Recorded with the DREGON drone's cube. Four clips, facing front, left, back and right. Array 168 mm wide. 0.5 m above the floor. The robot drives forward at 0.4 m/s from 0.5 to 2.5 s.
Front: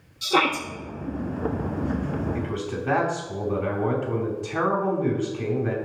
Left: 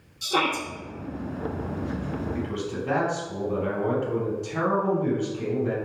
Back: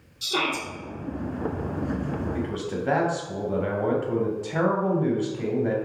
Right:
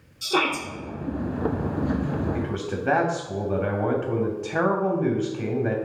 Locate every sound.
0.2 s a shout: 20° right, 1.0 m
2.3 s a man speaking: 110° right, 3 m; by 5.8 s 115° right, 3 m